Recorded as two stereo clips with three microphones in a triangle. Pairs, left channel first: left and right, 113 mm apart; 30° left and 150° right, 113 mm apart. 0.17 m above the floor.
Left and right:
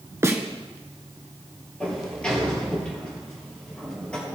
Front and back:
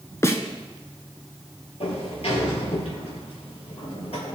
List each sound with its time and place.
0.2 s a snare drum: 30° right, 1.0 m
1.8 s a sliding door: 10° left, 3 m